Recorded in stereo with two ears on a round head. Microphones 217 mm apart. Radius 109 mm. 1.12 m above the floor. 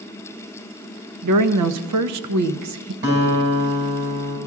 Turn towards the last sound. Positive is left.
turn(degrees=-45)  # may be behind; listen again after turning